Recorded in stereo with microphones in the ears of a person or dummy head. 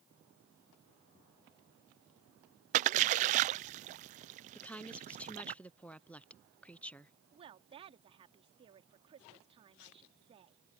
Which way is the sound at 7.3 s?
30° right (ahead or behind).